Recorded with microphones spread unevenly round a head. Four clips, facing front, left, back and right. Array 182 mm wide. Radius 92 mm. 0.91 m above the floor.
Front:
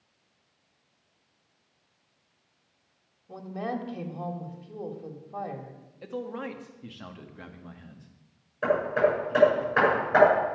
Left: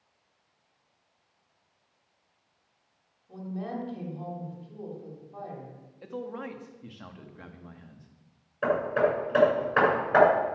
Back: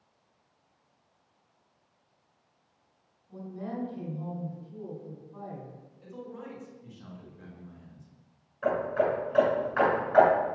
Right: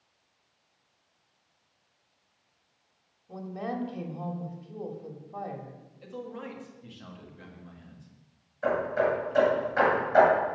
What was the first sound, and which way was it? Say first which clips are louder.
A woman speaking: right 1 dB, front 5 dB; 20° right.